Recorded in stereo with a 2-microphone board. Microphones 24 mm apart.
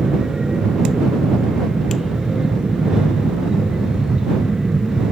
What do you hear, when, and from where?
0.0 s an aircraft: 35° right (ahead or behind)